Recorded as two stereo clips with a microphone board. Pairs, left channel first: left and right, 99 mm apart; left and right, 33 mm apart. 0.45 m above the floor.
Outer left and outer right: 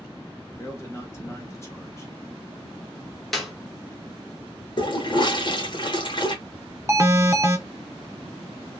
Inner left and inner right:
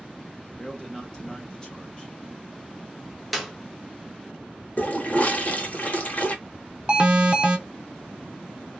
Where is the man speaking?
25° left (ahead or behind), 0.9 m.